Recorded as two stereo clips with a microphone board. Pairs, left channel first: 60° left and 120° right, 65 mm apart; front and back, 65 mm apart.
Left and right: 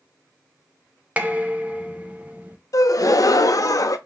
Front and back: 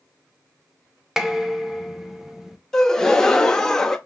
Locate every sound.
1.2 s dishes clattering: 105° right, 0.6 m
2.7 s a gasp: 80° left, 0.6 m